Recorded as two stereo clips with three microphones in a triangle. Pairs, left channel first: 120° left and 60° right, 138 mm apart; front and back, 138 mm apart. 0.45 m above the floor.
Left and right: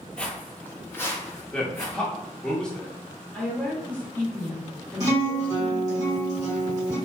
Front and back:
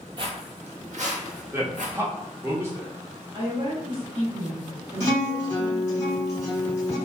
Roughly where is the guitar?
Ahead right.